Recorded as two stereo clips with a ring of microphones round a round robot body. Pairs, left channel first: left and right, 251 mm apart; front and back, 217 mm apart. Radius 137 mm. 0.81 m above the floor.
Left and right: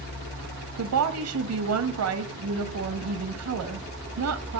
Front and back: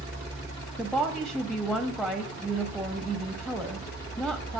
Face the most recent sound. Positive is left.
turn(degrees=-90)